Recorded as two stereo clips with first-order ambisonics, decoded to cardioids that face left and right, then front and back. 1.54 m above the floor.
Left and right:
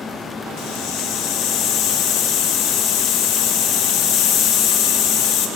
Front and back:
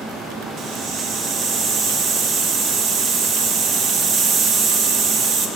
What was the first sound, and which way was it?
A hiss, 130° left.